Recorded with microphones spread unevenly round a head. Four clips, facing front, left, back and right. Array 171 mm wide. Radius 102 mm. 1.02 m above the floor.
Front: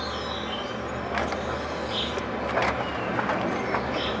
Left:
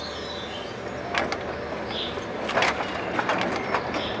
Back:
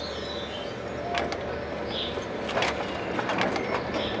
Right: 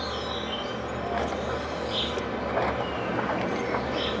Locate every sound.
0.0 s an insect: 35° right, 2.5 m